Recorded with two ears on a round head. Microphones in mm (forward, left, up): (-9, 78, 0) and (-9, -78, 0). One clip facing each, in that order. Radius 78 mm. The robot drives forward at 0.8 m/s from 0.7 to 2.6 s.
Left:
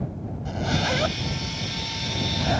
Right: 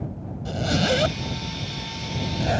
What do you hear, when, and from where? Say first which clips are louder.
0.5 s a zipper: right 4 dB; 40° right (ahead or behind); by 2.6 s 35° right (ahead or behind)